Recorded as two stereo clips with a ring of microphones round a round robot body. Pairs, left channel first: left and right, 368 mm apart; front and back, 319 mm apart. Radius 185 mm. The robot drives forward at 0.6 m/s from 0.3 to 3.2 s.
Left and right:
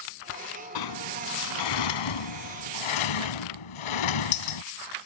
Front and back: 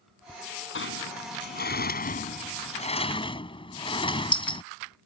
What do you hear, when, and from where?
0.8 s a sliding door: 55° left; by 4.6 s 75° left